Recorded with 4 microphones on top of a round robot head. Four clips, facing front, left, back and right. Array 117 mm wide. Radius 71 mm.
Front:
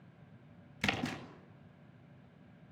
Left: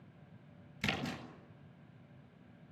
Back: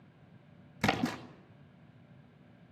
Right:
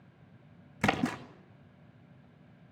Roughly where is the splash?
Behind right.